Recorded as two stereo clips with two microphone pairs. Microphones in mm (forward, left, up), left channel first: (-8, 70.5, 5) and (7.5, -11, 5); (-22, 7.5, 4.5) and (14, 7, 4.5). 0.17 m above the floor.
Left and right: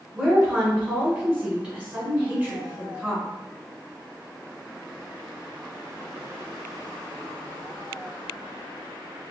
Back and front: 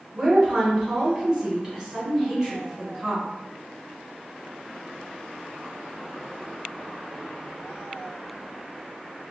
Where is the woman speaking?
50° right, 1.4 m.